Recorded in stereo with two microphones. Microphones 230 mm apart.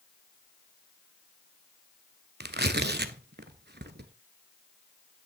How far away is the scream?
I don't hear a scream.